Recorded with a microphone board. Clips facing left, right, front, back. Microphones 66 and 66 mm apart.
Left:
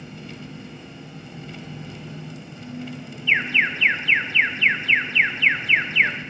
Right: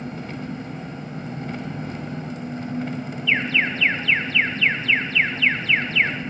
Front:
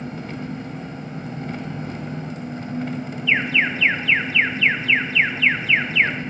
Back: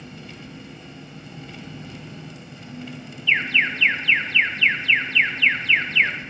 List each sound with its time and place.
0.0 s an engine running: 45° right, 0.8 m
3.3 s an alarm: 55° left, 1.0 m